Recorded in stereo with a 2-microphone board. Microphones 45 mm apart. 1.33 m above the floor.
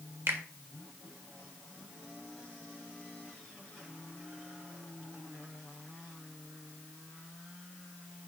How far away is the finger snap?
About 1.7 m.